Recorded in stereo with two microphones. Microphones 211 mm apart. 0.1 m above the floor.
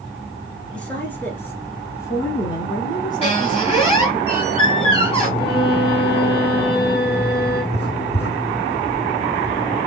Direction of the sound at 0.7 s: 5° left (ahead or behind).